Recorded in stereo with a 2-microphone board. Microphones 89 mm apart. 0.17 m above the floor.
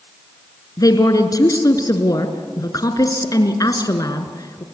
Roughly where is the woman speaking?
Left.